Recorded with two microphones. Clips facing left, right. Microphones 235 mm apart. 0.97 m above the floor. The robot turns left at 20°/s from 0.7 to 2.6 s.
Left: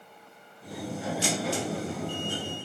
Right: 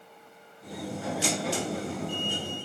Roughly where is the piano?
No piano in this recording.